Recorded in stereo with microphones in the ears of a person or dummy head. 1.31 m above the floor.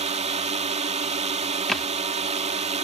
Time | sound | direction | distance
0.0 | a drone | 35° right (ahead or behind) | ?
1.7 | a thud | centre (ahead or behind) | ?